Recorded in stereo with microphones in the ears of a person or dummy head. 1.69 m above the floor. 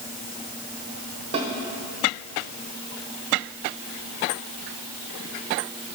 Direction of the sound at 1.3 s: 30° right (ahead or behind).